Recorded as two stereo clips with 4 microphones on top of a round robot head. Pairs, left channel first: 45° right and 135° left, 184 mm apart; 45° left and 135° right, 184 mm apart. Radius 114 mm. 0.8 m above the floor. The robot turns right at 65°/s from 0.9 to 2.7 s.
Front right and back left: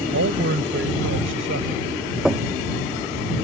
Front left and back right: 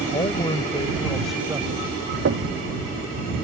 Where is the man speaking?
110° left; by 1.9 s 175° left.